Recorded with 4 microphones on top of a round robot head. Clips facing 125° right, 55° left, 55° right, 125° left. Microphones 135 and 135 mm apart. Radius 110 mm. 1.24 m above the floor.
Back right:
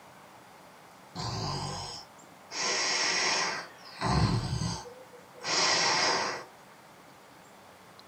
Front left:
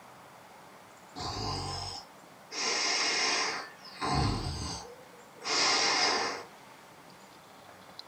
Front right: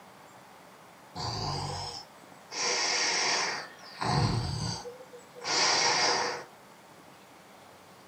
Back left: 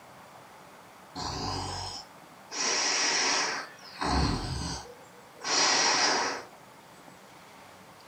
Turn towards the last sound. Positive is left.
turn(degrees=-140)